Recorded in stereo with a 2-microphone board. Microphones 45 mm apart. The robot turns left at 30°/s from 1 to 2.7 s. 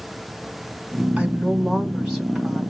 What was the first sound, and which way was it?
A woman speaking, 135° right.